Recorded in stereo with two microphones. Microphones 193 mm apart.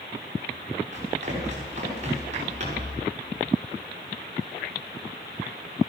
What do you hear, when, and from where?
0.9 s running footsteps: 35° right (ahead or behind), 7.5 m